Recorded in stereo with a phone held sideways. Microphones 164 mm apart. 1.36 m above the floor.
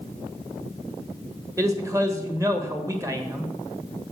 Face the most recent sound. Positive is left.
turn(degrees=-20)  # may be behind; listen again after turning